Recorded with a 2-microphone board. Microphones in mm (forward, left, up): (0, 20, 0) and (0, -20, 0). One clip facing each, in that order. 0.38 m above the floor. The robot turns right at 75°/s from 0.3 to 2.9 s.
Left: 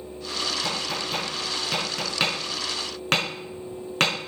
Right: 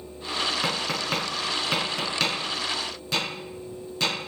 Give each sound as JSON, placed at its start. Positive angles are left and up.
{"t": 0.6, "sound": "tapping", "side_deg": -70, "distance_m": 5.0}